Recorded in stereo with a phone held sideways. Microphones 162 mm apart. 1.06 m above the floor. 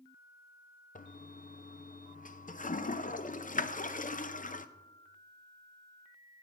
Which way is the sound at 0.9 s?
55° left (ahead or behind).